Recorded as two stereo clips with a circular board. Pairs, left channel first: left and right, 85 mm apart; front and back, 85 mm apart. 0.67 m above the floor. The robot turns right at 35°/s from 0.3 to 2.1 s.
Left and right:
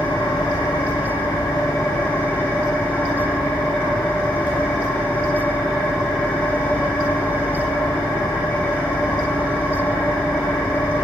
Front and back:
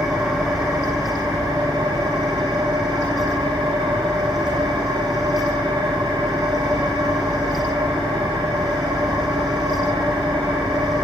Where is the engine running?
95° left, 2.5 m; by 11.1 s 155° left, 2.5 m.